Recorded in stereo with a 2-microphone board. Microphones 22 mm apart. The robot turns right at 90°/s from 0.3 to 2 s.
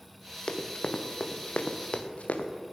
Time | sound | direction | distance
0.5 | running footsteps | 45° left (ahead or behind) | 1.7 m